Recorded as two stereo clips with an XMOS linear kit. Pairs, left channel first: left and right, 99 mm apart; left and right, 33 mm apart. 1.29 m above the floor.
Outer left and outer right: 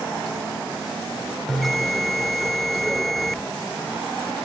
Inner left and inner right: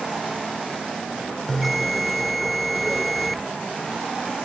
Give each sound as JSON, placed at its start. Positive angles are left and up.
{"t": 1.5, "sound": "a bell", "side_deg": 0}